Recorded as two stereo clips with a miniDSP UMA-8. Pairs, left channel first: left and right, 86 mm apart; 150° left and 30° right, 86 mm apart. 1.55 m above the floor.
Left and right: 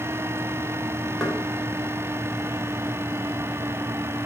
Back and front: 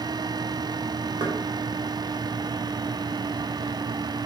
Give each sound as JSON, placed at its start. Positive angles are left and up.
{"t": 1.2, "sound": "knocking", "azimuth_deg": 0, "distance_m": 1.6}